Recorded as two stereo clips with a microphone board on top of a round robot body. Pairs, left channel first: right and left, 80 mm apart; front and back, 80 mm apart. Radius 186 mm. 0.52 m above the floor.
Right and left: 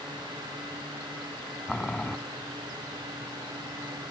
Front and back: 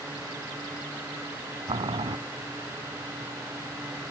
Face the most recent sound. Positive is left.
turn(degrees=-170)